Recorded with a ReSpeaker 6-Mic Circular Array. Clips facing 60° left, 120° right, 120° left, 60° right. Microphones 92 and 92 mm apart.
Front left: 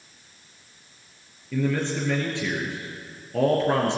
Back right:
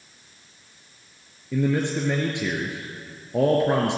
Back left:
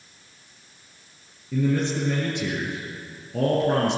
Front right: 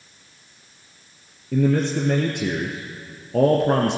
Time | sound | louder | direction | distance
1.5 | a man speaking | back right 2 dB, front right 4 dB | 50° right | 2.5 m